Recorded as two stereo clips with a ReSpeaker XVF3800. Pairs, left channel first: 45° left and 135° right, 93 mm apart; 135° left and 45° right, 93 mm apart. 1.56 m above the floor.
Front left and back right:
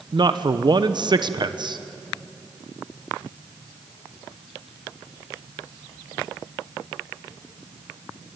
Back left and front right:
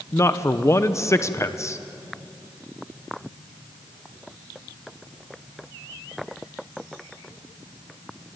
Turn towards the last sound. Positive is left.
turn(degrees=-170)